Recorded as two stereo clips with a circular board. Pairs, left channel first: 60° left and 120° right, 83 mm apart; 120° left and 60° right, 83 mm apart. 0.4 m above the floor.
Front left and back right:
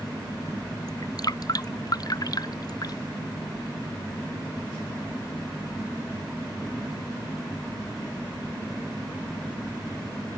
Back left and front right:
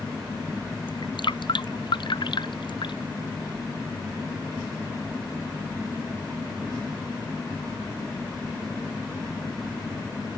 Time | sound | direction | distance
0.9 | dripping | 100° left | ?